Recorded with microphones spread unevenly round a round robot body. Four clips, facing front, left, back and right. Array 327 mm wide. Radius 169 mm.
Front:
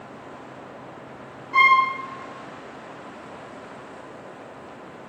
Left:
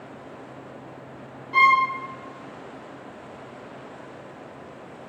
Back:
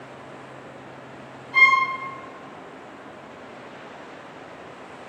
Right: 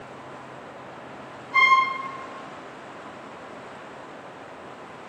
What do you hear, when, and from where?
1.5 s a violin: 65° left, 0.6 m